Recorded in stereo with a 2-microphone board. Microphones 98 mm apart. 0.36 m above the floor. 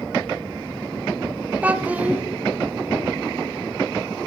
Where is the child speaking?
15° right (ahead or behind), 0.7 m.